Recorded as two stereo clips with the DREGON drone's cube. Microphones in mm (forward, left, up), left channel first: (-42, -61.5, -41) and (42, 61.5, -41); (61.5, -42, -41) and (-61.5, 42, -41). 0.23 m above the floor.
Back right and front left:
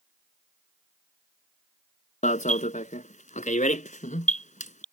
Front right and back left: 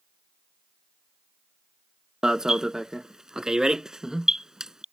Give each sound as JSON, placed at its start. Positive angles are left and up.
{"t": 2.2, "sound": "an alarm", "azimuth_deg": -130}